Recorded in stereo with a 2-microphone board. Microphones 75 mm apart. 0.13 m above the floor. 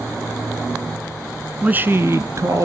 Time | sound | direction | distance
1.6 | a man speaking | 20° right (ahead or behind) | 1.3 m